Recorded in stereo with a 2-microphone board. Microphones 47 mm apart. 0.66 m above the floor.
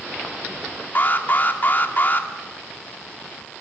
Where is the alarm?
40° left (ahead or behind), 2 m.